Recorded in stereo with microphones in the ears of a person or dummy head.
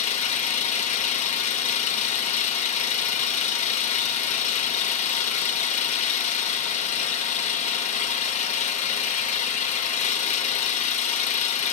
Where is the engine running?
40° left (ahead or behind), 0.8 m.